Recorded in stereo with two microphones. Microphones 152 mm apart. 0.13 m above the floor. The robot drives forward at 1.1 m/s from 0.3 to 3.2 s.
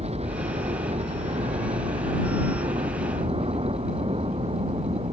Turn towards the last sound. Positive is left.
turn(degrees=-40)  # may be behind; listen again after turning